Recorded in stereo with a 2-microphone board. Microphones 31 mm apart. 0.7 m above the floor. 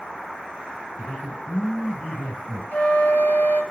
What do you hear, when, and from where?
1.0 s a man speaking: 55° left (ahead or behind), 5.5 m
2.7 s a flute: 65° left (ahead or behind), 2.5 m